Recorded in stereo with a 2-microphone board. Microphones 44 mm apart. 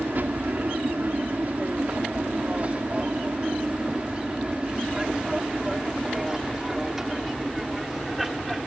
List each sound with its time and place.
0.0 s an aircraft: 45° right (ahead or behind); by 8.7 s centre (ahead or behind)